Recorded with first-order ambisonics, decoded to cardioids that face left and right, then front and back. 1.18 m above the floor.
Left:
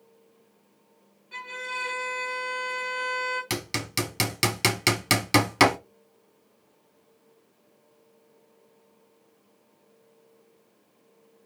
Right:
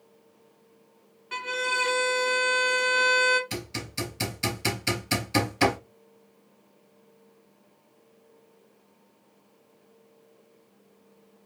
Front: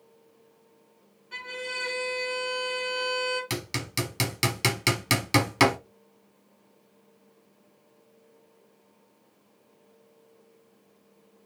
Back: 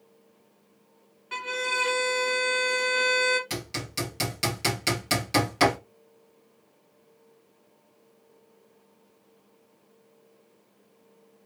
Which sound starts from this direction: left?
Hammering, at 3.5 s.